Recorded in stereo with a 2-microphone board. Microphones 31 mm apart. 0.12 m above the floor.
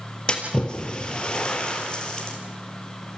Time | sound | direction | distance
0.3 | a splash | 30° left (ahead or behind) | 3 m